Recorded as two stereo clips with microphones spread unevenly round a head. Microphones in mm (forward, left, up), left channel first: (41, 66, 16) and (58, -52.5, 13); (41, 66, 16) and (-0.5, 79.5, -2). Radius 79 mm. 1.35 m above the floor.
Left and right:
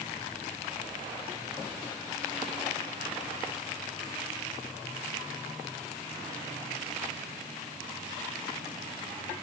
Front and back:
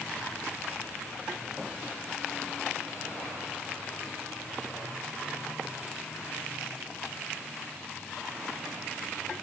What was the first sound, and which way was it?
Only background noise.